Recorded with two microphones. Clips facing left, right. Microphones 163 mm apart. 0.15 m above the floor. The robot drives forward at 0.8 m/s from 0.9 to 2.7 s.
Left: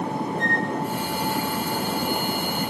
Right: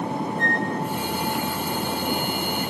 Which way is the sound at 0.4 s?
55° right (ahead or behind).